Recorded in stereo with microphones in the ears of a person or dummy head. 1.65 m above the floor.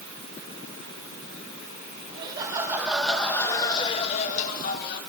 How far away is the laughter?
About 2.0 m.